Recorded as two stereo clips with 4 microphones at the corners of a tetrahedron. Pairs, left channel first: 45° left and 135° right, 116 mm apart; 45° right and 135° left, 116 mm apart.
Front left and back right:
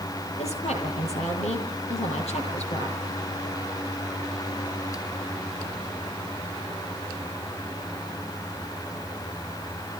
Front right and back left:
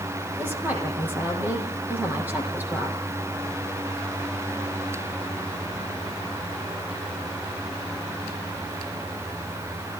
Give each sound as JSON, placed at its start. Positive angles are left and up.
{"t": 0.4, "sound": "a woman speaking", "azimuth_deg": 60, "distance_m": 9.0}